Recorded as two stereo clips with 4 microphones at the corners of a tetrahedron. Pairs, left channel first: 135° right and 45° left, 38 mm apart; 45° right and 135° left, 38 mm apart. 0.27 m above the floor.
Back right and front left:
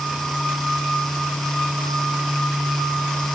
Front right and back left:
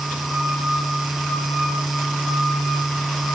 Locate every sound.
Only background noise.